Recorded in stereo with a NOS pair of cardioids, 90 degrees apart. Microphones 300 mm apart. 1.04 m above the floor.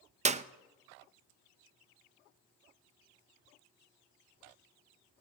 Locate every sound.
0.2 s a clap: 25° right, 0.5 m